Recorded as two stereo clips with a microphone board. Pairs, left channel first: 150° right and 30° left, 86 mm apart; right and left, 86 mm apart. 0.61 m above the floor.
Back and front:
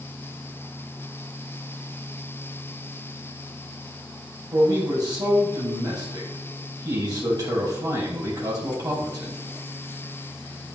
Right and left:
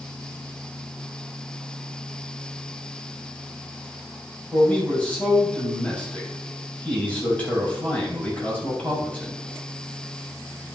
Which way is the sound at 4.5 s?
15° right.